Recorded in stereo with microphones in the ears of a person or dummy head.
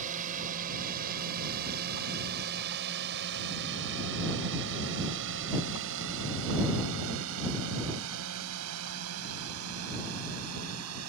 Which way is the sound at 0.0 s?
45° right (ahead or behind).